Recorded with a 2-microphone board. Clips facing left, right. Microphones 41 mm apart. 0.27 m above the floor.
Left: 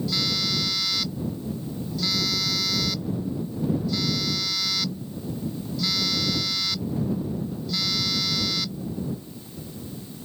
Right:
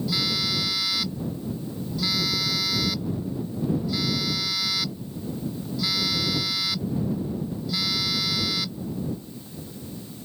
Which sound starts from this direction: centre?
A phone buzzing, at 0.1 s.